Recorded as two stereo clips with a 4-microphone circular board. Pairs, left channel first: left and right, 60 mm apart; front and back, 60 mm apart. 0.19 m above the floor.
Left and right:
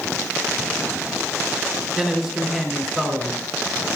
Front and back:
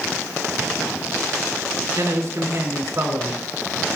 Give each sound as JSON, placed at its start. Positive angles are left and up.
{"t": 2.0, "sound": "a man speaking", "azimuth_deg": -175, "distance_m": 2.5}